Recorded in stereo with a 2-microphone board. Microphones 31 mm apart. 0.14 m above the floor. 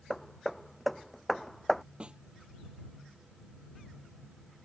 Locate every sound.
0.1 s hammering: 5° left (ahead or behind)
2.0 s a snare drum: 35° right (ahead or behind)